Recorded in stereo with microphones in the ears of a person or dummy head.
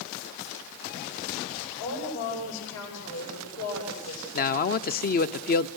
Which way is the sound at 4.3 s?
45° left (ahead or behind).